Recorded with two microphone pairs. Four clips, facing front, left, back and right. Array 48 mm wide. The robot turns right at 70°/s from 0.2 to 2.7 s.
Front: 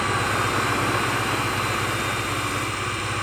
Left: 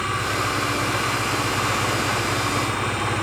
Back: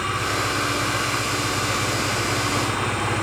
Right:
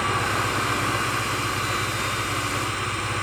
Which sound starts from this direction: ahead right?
An engine running, at 0.0 s.